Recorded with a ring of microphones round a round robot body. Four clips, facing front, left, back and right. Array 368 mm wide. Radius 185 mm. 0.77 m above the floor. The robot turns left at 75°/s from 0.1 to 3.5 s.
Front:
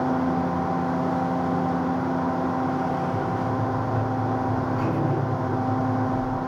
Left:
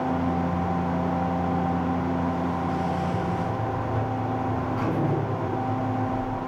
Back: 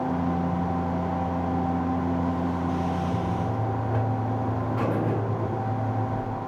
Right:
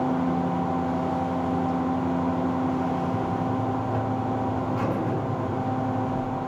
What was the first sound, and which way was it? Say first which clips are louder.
A buzzer: right 1 dB, front 3 dB; 145° right.